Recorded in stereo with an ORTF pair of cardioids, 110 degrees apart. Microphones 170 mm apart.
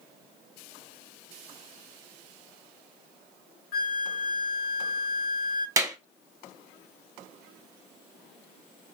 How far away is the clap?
About 1.1 m.